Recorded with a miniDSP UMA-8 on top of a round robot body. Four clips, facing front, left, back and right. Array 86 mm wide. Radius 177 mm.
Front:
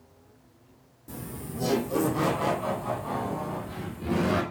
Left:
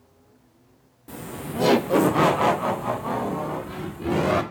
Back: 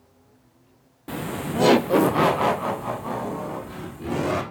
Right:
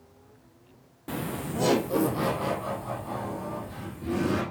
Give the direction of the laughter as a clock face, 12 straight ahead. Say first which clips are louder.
Right 1 dB, back 10 dB; 5 o'clock.